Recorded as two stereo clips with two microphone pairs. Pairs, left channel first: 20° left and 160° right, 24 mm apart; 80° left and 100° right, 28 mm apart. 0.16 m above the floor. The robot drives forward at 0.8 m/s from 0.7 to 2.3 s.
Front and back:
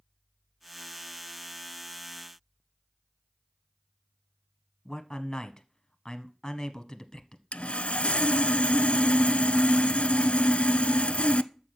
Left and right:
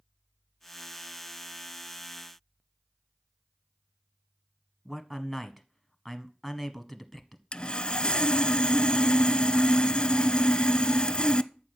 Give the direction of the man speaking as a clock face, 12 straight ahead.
1 o'clock.